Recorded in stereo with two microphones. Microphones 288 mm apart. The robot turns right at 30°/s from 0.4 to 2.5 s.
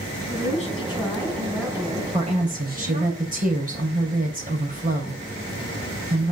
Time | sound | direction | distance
0.3 | a woman speaking | 150° left | 4.5 m
2.1 | a woman speaking | 20° right (ahead or behind) | 3 m